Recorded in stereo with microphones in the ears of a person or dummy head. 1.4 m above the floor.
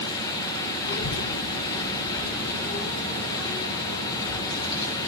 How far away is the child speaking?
About 0.6 m.